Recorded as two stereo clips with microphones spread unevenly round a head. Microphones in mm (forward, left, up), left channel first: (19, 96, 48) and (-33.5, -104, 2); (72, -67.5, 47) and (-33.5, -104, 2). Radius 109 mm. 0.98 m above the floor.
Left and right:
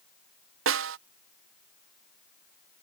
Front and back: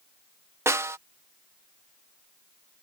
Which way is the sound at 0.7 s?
100° right.